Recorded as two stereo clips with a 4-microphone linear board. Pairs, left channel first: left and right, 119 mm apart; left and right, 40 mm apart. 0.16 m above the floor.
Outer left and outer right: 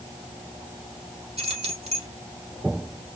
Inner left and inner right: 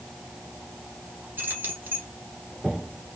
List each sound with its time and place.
1.4 s keys jangling: 60° right (ahead or behind), 2 m